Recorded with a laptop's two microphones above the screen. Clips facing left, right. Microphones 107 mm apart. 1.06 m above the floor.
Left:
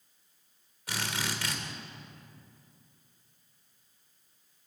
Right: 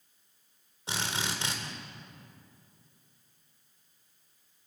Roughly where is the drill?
Right.